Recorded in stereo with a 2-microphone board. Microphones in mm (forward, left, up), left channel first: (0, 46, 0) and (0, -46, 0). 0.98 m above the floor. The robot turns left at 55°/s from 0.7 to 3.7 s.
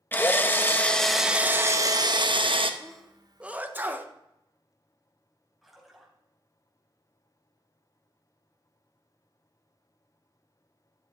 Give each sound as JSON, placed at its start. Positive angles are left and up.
{"t": 0.1, "sound": "a drill", "azimuth_deg": 25, "distance_m": 0.9}
{"t": 2.8, "sound": "a sneeze", "side_deg": 10, "distance_m": 1.0}
{"t": 5.6, "sound": "a splash", "side_deg": 0, "distance_m": 3.5}